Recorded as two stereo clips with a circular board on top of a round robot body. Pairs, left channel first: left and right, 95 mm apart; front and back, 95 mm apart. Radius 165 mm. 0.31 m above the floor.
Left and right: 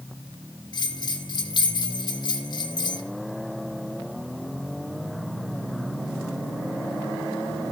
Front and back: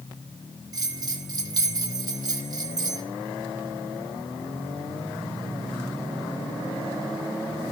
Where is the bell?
135° left, 3 m.